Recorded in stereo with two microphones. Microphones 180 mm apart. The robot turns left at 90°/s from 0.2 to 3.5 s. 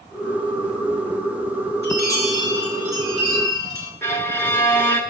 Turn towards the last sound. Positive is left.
turn(degrees=15)  # may be behind; listen again after turning